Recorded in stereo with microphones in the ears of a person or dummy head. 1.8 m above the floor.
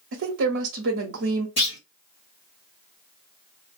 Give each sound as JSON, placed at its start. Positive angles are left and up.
{"t": 0.1, "sound": "a woman speaking", "side_deg": -65, "distance_m": 0.9}
{"t": 1.6, "sound": "a clunk", "side_deg": 25, "distance_m": 1.3}